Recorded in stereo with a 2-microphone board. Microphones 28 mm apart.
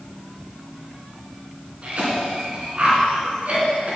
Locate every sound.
1.8 s a cough: 40° right (ahead or behind), 2.5 m